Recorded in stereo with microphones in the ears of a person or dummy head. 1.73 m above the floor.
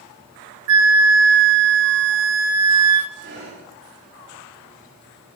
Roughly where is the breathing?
Right.